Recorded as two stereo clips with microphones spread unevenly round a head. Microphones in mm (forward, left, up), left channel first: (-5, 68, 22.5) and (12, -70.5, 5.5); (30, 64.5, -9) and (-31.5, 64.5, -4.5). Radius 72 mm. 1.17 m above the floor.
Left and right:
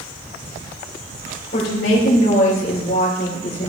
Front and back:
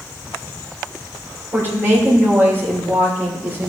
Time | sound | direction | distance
1.5 | a woman speaking | 130° left | 3 m